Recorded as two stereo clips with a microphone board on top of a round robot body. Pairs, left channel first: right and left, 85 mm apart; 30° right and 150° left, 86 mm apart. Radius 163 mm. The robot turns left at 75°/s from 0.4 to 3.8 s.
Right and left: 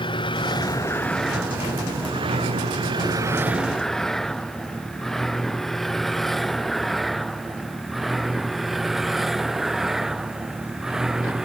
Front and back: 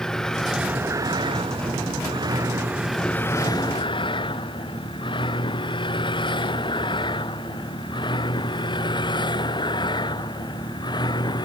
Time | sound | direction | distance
0.0 | a vehicle | 115° right | ?